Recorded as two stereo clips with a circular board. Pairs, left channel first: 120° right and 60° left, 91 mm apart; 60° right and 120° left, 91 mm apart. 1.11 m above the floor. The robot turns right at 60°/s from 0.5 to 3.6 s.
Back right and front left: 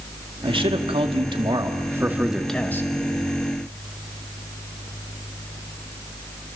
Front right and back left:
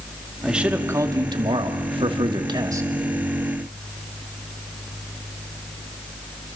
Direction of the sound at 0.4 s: 35° left.